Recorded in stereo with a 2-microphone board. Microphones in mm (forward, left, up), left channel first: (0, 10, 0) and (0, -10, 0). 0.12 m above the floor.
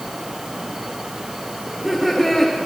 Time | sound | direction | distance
1.6 | laughter | 15° left (ahead or behind) | 9.5 m